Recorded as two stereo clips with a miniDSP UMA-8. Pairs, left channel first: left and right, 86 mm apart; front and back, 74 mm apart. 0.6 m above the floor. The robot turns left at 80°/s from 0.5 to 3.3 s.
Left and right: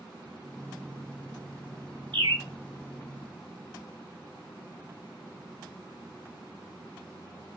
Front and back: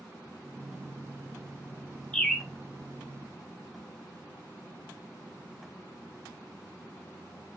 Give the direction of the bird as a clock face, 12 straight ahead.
2 o'clock.